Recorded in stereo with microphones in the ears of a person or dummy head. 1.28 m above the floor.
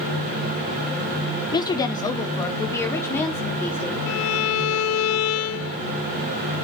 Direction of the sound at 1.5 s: 25° left (ahead or behind).